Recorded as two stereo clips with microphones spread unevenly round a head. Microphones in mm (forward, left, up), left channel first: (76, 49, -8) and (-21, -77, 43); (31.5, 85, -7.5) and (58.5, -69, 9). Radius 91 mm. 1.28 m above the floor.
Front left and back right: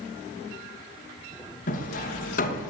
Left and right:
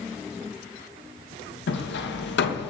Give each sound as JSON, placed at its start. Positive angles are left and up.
{"t": 1.7, "sound": "hammering", "azimuth_deg": 95, "distance_m": 1.3}